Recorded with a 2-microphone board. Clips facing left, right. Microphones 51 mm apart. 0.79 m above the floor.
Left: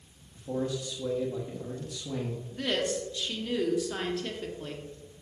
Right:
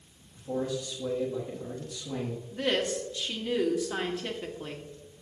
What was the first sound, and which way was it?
A man speaking, 15° left (ahead or behind).